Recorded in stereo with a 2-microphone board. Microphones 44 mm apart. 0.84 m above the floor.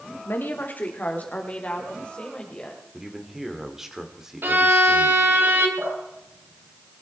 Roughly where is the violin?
Right.